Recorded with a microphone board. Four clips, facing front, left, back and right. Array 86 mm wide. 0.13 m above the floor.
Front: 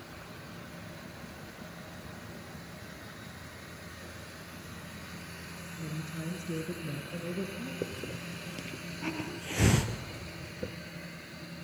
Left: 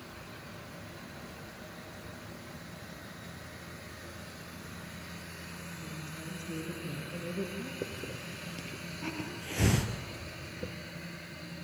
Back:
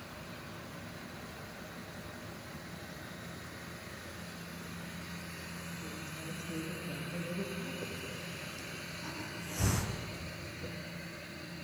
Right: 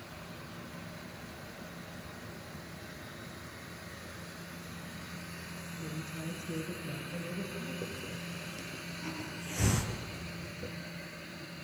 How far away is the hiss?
About 1.2 m.